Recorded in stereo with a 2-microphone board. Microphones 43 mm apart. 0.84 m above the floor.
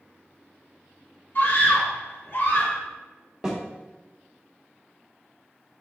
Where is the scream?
50° left (ahead or behind), 2.5 m; by 2.8 s 45° left (ahead or behind), 1.3 m.